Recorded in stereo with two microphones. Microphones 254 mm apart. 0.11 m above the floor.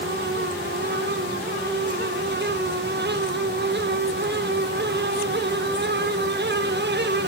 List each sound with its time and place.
Only background noise.